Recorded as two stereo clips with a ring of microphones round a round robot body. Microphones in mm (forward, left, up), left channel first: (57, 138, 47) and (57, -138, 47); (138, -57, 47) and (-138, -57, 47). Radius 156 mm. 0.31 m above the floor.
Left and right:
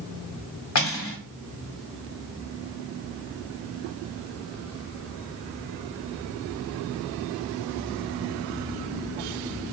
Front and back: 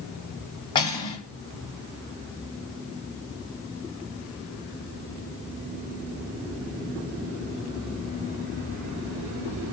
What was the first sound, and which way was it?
Cutlery clinking, 75° left.